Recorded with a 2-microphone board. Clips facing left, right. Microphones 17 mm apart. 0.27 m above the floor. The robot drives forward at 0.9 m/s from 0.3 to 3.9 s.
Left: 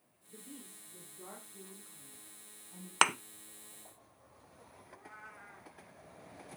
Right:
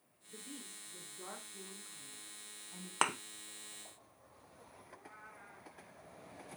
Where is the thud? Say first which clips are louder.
Left 6 dB; 65° left (ahead or behind), 0.6 m; by 3.1 s 70° left (ahead or behind), 0.6 m.